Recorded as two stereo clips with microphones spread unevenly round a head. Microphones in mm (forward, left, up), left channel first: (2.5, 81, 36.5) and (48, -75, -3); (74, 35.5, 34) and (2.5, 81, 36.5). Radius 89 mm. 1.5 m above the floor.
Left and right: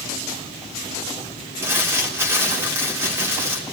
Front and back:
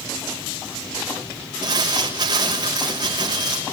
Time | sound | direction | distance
1.6 | crumpling | 155° right | 3.5 m